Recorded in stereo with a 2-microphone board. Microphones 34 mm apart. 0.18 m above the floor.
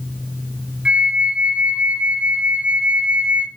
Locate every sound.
0.8 s a flute: 30° right (ahead or behind), 0.6 m